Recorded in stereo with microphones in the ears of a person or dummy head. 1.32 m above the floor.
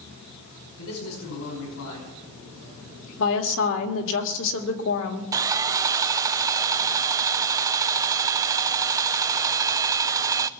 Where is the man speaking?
75° left (ahead or behind), 5.5 m.